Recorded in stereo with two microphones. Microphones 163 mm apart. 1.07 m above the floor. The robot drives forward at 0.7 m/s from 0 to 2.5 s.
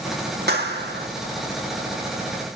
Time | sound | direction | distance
0.5 | a clap | 70° right (ahead or behind) | 2 m